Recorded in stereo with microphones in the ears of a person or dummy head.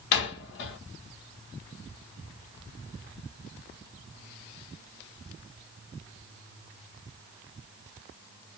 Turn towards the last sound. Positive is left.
turn(degrees=60)  # may be behind; listen again after turning